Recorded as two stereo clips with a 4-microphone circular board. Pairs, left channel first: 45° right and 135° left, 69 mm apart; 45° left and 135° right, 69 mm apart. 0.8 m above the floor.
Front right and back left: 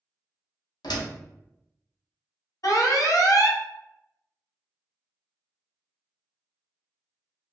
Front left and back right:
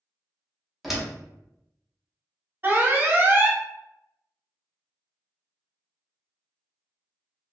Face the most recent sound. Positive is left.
turn(degrees=-75)